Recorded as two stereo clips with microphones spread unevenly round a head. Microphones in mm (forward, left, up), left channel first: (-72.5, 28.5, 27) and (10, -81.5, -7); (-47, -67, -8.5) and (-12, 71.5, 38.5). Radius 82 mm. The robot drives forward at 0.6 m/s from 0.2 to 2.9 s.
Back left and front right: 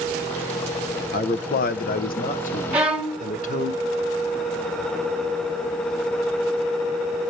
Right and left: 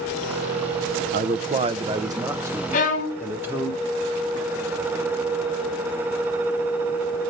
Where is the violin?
145° right, 1.4 m.